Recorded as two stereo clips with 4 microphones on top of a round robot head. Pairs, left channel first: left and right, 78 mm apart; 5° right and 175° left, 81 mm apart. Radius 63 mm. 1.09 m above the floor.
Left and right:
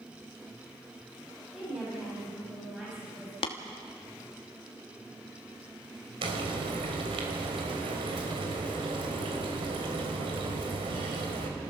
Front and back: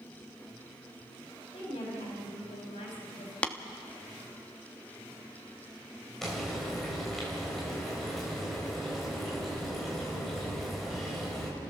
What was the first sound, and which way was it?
A woman speaking, 10° right.